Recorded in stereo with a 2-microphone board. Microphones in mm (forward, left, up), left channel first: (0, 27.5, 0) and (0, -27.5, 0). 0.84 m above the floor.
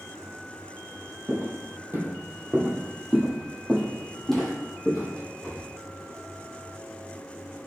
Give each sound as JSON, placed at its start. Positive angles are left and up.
{"t": 1.3, "sound": "footsteps", "side_deg": -50, "distance_m": 1.2}